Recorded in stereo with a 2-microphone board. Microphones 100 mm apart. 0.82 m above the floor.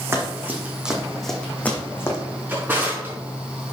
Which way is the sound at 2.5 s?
20° right (ahead or behind).